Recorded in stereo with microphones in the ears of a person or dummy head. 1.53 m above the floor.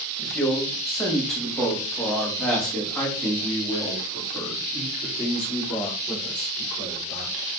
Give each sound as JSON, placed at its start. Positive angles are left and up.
{"t": 0.2, "sound": "a man speaking", "side_deg": 5, "distance_m": 2.0}